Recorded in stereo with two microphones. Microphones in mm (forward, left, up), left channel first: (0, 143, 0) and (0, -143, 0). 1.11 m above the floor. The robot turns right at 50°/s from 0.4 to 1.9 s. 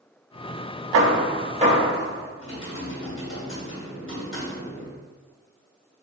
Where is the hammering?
60° right (ahead or behind), 1.1 m; by 2.3 s 10° right (ahead or behind), 1.1 m.